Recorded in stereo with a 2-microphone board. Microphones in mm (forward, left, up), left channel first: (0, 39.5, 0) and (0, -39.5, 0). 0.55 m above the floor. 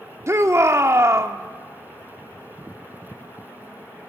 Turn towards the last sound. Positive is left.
turn(degrees=-40)  # may be behind; listen again after turning